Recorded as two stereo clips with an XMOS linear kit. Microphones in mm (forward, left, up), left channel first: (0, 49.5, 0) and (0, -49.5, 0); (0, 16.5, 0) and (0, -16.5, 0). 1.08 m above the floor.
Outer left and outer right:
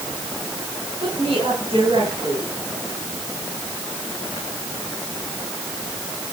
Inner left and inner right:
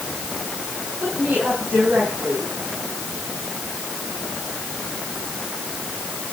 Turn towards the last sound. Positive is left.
turn(degrees=-80)